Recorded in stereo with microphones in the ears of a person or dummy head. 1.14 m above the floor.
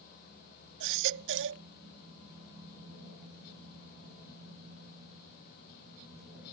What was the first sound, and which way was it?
A baby crying, 70° right (ahead or behind).